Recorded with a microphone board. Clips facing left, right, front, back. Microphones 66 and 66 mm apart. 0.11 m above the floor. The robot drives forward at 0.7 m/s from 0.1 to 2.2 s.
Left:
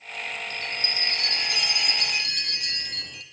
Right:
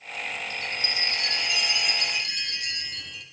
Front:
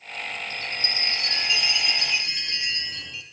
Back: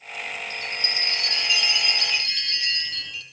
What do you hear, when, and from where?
0.5 s a chime: 50° left, 4.5 m; by 3.2 s 65° left, 4 m